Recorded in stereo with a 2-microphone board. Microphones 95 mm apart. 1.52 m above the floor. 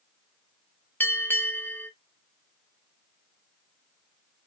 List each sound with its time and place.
1.0 s a bell: 20° left (ahead or behind), 0.6 m